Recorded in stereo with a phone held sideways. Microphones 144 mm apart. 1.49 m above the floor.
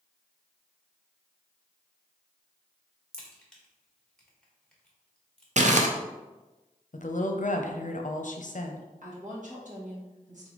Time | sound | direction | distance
3.1 | a crack | 5° left (ahead or behind) | 1.2 m
5.6 | crumpling | 55° right (ahead or behind) | 0.5 m
6.9 | a woman speaking | 60° left (ahead or behind) | 0.6 m
9.0 | a woman speaking | 60° right (ahead or behind) | 1.7 m